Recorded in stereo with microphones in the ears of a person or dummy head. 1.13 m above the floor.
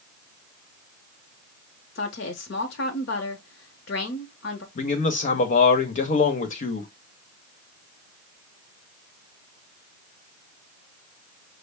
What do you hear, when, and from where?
1.9 s a woman speaking: 60° left (ahead or behind), 0.8 m
4.8 s a man speaking: 40° left (ahead or behind), 1.0 m